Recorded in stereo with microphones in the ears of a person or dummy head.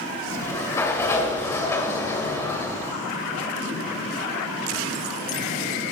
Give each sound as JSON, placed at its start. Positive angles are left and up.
{"t": 0.3, "sound": "a sliding door", "side_deg": 10, "distance_m": 2.0}